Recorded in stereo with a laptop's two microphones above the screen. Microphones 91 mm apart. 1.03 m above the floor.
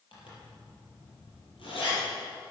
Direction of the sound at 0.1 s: 70° left (ahead or behind).